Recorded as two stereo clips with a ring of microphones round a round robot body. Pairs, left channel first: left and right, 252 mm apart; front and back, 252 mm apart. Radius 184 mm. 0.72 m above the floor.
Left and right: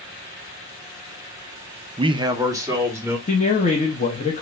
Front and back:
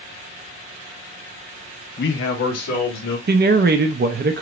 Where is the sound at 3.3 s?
145° left, 0.6 m.